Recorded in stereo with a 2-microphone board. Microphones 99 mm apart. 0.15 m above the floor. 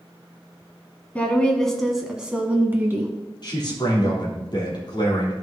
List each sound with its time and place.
1.1 s a woman speaking: 15° left (ahead or behind), 1.4 m; by 3.1 s 25° right (ahead or behind), 1.5 m
3.4 s a man speaking: 50° left (ahead or behind), 3.5 m